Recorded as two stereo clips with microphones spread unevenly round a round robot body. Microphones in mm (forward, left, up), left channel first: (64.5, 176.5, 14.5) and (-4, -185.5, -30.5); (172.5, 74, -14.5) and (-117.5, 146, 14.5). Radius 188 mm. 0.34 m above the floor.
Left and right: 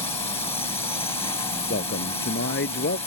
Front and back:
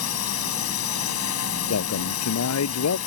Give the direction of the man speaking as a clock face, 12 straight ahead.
11 o'clock.